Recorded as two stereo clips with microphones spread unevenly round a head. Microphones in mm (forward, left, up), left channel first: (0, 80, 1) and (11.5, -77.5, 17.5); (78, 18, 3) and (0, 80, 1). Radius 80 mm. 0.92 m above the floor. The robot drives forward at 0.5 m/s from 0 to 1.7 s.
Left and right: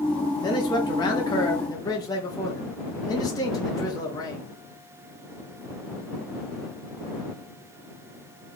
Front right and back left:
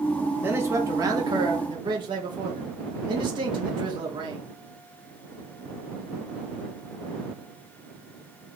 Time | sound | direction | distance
0.4 | a man speaking | 95° left | 0.8 m